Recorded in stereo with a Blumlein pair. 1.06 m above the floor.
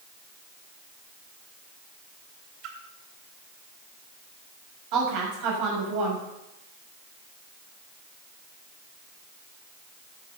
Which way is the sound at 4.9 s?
40° right.